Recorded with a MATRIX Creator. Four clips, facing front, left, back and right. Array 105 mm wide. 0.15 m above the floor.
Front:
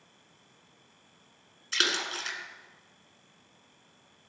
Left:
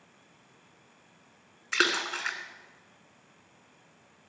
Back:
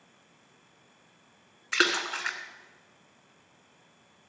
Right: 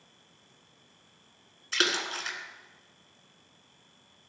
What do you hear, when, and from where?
1.7 s a splash: 145° left, 1.2 m